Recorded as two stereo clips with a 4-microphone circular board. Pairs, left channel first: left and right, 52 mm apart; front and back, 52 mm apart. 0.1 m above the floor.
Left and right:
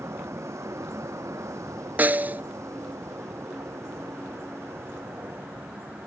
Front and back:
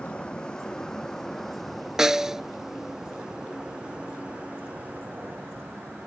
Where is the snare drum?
105° right.